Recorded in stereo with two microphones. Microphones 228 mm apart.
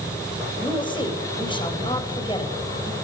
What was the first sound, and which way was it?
A woman speaking, 20° left (ahead or behind).